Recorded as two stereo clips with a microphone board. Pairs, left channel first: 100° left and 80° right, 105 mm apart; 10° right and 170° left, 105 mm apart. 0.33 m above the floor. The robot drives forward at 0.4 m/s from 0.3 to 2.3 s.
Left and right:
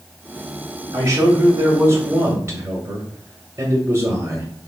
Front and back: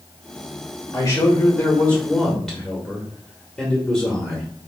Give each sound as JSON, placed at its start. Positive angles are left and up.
{"t": 0.9, "sound": "a man speaking", "azimuth_deg": -45, "distance_m": 1.3}